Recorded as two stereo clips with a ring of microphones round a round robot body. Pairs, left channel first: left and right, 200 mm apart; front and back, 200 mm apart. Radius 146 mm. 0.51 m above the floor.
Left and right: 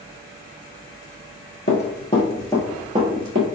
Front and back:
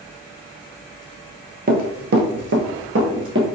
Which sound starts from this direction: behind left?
Running footsteps, at 1.7 s.